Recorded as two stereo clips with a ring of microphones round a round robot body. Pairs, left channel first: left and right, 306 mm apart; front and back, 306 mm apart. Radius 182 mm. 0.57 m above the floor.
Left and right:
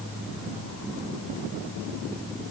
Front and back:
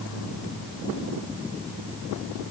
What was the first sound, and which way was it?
Only background noise.